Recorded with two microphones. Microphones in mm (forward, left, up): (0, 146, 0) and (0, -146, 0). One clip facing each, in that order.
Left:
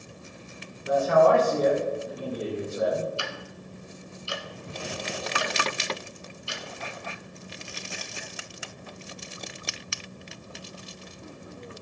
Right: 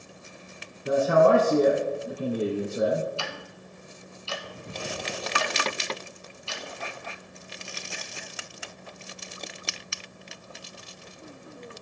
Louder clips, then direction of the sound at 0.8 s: Right 1 dB; 55° right (ahead or behind).